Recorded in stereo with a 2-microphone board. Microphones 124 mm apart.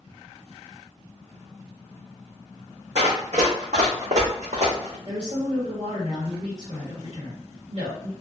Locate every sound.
3.0 s running footsteps: 65° right (ahead or behind), 1.3 m; by 5.0 s 60° right (ahead or behind), 1.4 m
5.0 s a woman speaking: 55° right (ahead or behind), 1.5 m